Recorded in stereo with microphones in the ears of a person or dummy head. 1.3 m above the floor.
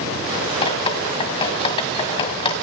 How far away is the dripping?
About 1.6 m.